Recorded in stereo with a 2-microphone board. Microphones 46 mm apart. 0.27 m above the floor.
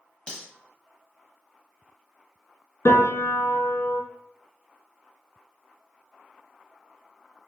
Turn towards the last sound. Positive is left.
turn(degrees=85)